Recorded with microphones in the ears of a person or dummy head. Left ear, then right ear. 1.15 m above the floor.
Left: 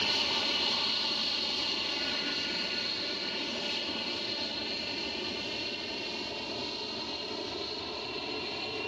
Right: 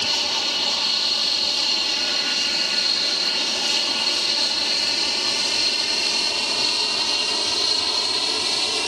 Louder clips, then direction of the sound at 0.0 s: Right 7 dB; 20° right (ahead or behind).